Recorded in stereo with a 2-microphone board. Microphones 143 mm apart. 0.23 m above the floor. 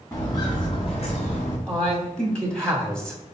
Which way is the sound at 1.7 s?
5° left (ahead or behind).